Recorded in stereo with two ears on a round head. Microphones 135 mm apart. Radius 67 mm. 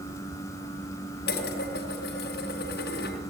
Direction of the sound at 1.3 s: 75° left (ahead or behind).